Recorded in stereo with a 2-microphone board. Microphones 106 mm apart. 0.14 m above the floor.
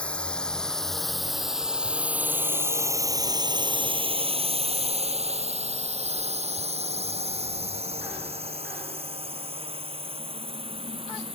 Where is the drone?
10° left (ahead or behind); by 11.4 s 55° right (ahead or behind).